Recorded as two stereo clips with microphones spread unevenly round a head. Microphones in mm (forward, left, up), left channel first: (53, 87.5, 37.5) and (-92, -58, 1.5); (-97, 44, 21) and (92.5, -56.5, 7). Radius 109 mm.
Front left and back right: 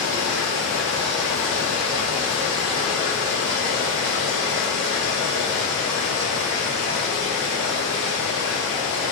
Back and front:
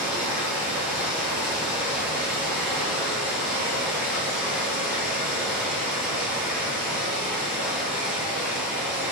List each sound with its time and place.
0.0 s running water: 170° right, 2.0 m